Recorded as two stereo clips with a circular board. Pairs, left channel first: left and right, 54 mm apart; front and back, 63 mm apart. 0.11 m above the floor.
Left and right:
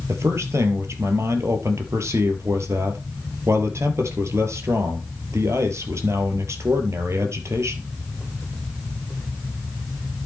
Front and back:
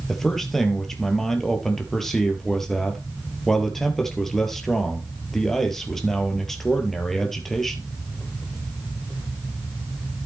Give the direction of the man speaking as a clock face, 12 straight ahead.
3 o'clock.